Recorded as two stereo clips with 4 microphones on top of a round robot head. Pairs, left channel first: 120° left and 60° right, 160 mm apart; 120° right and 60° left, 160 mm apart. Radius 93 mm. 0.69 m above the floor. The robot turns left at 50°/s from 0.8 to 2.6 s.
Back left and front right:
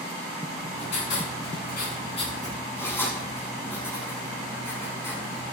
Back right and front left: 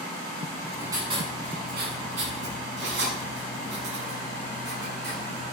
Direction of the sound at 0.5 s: 135° left.